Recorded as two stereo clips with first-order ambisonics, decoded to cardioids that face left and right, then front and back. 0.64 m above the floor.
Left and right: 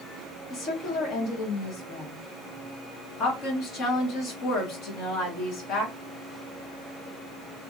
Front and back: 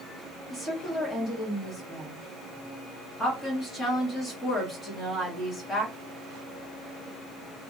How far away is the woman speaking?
About 1.3 m.